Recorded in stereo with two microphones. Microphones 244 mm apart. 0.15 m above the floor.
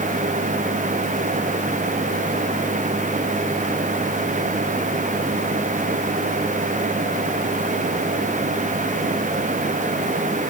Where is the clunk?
I don't hear a clunk.